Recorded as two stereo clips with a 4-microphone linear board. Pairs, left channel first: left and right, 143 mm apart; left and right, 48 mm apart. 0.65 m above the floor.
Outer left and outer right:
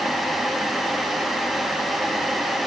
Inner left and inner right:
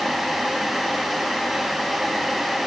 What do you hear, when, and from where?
Only background noise.